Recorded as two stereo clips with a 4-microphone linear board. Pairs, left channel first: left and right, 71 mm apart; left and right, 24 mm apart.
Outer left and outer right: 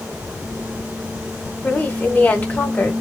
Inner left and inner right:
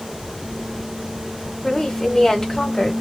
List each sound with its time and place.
1.6 s a woman speaking: 25° left (ahead or behind), 1.4 m